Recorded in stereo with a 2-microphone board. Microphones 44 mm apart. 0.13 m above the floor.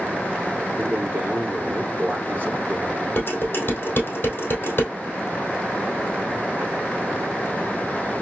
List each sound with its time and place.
0.8 s a man speaking: 45° right (ahead or behind), 2.0 m
3.2 s dishes clattering: 45° left (ahead or behind), 2.5 m